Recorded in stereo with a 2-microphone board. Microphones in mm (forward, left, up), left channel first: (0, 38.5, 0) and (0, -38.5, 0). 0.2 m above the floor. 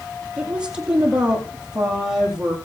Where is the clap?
No clap in this recording.